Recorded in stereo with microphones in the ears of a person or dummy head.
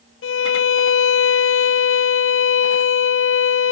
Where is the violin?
60° left (ahead or behind), 0.6 m.